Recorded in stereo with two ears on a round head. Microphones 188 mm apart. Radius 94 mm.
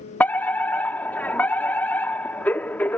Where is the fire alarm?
10° left (ahead or behind).